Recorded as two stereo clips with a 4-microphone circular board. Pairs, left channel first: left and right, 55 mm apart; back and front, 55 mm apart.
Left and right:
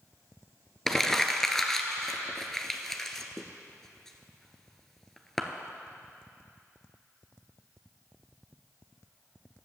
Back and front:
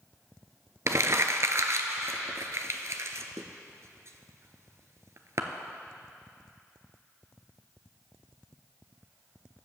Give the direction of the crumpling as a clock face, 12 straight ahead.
12 o'clock.